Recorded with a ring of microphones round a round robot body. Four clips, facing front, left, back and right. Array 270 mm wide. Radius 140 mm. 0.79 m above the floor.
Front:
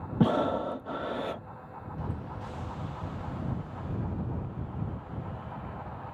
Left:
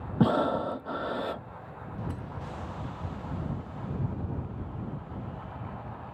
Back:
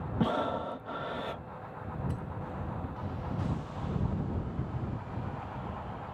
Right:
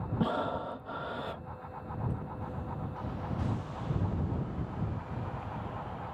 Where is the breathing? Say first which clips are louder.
Left 7 dB, front 5 dB; 50° left.